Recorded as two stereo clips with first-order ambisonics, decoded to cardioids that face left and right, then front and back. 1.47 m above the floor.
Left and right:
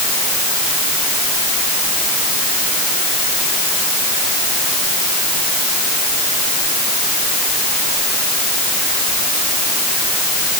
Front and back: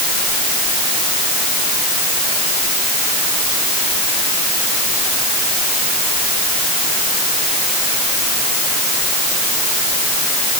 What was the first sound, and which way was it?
Only background noise.